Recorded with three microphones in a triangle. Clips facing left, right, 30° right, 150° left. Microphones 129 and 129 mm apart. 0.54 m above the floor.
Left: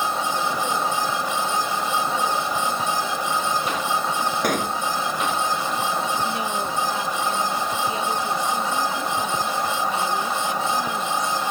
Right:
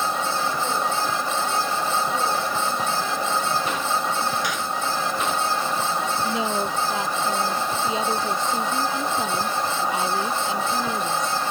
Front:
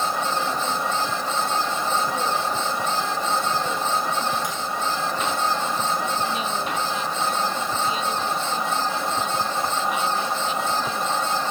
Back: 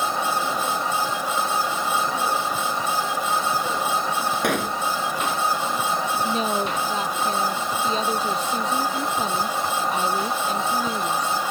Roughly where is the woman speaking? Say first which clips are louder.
Right 1 dB, back 3 dB; behind right.